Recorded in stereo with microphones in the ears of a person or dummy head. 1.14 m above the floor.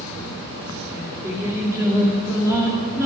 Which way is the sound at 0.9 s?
20° right (ahead or behind).